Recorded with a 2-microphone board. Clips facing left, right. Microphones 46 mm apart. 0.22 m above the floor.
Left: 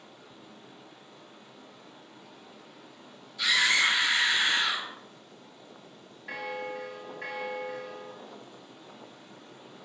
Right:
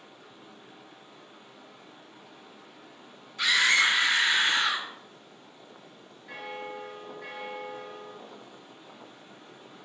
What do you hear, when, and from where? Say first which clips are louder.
0.0 s running water: even; 30° right (ahead or behind), 1.5 m
3.4 s a scream: right 2 dB; 50° right (ahead or behind), 2 m
6.3 s a bell: left 3 dB; 70° left (ahead or behind), 0.7 m